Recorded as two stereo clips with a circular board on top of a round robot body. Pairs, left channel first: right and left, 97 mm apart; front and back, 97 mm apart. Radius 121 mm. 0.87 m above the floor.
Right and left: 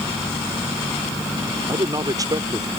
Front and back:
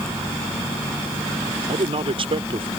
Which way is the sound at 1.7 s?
145° left.